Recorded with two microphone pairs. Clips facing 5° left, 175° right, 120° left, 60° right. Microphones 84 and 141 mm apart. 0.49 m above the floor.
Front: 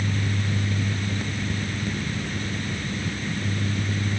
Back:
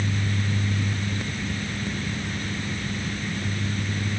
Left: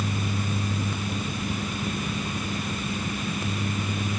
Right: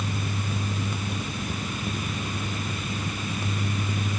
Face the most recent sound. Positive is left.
No sound to turn to.